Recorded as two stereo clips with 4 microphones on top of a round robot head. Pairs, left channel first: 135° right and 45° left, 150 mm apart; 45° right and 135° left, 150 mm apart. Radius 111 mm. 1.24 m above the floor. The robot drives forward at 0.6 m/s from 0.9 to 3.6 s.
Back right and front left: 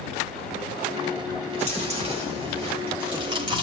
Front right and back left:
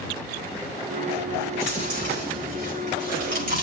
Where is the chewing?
90° left, 4.5 m; by 3.6 s 105° left, 5 m.